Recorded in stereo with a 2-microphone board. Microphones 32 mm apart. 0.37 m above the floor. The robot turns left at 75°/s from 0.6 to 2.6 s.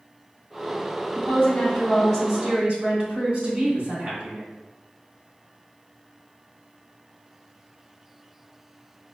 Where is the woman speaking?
65° left, 1.6 m; by 4.4 s 40° right, 1.6 m.